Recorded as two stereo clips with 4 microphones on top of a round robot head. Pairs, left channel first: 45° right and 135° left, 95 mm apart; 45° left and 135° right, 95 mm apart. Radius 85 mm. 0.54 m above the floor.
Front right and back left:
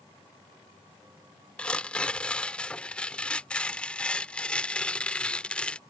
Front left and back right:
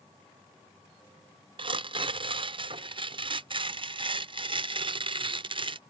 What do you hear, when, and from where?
1.6 s tearing paper: 120° right